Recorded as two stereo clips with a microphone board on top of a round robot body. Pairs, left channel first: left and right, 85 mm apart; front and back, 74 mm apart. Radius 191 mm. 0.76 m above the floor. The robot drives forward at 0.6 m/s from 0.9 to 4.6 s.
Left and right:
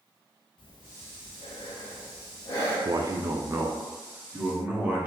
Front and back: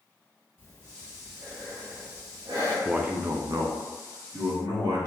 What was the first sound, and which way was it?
Breathing, 60° left.